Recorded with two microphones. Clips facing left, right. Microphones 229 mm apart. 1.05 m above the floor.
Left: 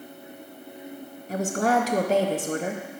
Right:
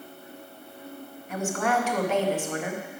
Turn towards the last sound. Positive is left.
turn(degrees=35)  # may be behind; listen again after turning